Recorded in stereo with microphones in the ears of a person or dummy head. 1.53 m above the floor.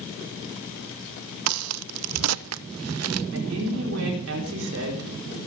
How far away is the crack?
About 0.5 m.